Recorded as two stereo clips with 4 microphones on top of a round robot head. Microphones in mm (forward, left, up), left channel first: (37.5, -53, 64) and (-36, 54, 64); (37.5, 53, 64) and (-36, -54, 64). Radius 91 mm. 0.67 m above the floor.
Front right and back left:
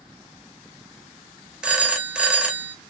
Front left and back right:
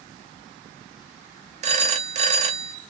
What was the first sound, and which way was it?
A phone ringing, 155° right.